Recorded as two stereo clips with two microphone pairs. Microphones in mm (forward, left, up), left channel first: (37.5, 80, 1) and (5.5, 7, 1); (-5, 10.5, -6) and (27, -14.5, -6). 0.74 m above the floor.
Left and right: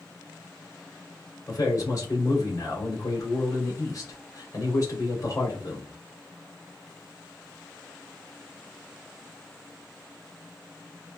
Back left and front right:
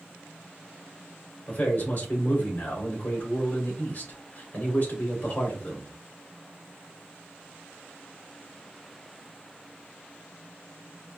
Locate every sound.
1.5 s a man speaking: 105° left, 2.5 m